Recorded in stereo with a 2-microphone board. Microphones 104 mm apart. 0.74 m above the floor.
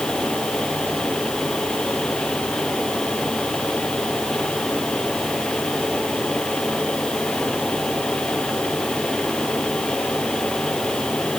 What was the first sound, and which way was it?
Only background noise.